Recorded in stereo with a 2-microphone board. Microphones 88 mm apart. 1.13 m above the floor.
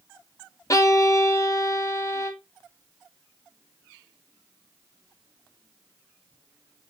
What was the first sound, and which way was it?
A violin, 35° left (ahead or behind).